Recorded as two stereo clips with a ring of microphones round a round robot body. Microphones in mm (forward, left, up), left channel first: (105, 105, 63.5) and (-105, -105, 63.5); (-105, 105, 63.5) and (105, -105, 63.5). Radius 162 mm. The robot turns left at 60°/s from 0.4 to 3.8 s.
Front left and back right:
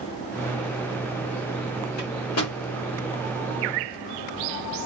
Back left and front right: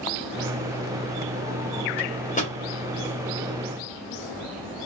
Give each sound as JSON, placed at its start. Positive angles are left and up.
{"t": 2.0, "sound": "a microwave", "azimuth_deg": 100, "distance_m": 1.7}